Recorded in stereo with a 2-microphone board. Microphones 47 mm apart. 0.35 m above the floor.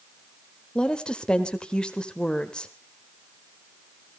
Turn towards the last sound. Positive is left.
turn(degrees=20)  # may be behind; listen again after turning